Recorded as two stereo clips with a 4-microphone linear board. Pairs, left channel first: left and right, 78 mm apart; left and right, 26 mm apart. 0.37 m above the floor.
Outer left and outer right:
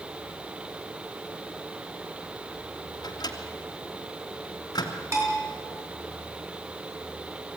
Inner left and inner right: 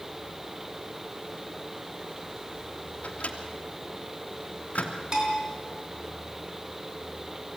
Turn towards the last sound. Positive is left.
turn(degrees=-40)  # may be behind; listen again after turning